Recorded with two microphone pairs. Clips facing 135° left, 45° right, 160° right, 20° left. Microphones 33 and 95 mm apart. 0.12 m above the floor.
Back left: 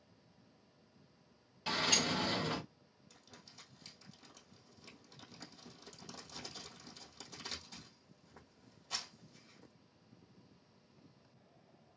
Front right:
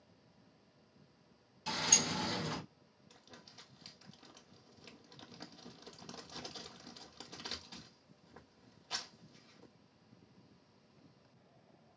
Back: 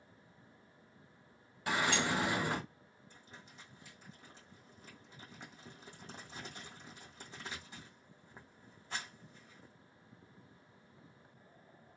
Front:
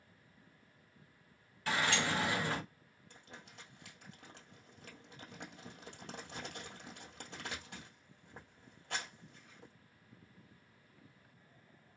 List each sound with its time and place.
1.7 s a sliding door: 150° left, 1.0 m
3.1 s crumpling: 20° left, 1.9 m